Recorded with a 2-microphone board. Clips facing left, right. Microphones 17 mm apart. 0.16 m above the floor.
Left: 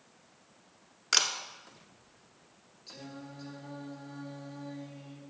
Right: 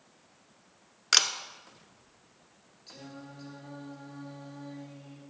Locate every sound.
1.1 s a camera shutter: 30° right (ahead or behind), 1.0 m
2.9 s singing: 5° left (ahead or behind), 2 m